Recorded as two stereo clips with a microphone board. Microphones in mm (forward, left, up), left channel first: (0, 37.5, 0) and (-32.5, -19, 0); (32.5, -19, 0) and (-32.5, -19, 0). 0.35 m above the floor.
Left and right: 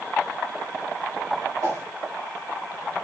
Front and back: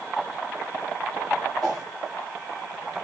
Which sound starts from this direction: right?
A whoosh, at 1.6 s.